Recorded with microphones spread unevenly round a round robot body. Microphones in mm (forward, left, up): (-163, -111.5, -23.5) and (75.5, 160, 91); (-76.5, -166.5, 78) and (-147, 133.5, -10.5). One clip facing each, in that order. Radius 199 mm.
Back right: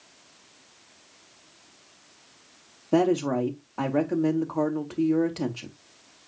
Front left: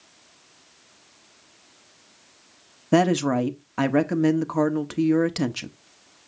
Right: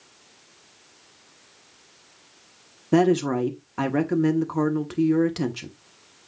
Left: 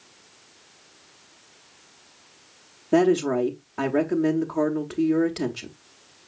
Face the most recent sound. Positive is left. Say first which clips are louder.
# front left 2 dB, even
turn(degrees=5)